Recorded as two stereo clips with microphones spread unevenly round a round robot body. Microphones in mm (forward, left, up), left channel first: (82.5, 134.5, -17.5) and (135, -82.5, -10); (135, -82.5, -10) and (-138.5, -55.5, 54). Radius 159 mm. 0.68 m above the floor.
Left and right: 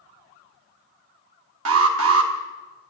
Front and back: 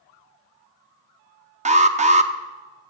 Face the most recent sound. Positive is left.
turn(degrees=-115)